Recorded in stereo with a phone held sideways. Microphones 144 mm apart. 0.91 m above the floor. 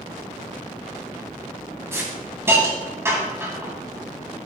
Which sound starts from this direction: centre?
A hiss, at 1.9 s.